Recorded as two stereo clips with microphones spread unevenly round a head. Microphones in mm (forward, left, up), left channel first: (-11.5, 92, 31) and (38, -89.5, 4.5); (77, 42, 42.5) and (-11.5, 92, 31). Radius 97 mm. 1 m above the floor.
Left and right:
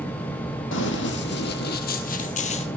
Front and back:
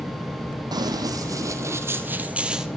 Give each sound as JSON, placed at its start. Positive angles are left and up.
{"t": 0.7, "sound": "running footsteps", "azimuth_deg": 105, "distance_m": 2.0}